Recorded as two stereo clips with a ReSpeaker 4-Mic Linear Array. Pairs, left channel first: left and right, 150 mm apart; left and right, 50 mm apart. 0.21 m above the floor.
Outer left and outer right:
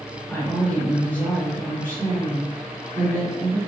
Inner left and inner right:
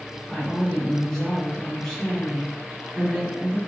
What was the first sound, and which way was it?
A woman speaking, 10° left (ahead or behind).